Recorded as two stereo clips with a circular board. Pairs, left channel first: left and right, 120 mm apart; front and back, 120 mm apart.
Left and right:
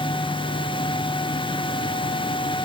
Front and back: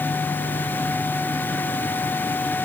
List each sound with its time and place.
Only background noise.